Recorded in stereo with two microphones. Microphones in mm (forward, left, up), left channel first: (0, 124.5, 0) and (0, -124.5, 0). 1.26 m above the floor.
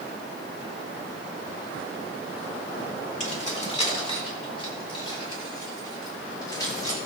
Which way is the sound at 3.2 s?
30° left (ahead or behind).